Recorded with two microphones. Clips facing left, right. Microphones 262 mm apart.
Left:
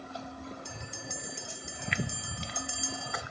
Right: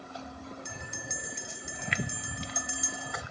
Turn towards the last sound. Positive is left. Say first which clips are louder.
# even
turn(degrees=-20)  # may be behind; listen again after turning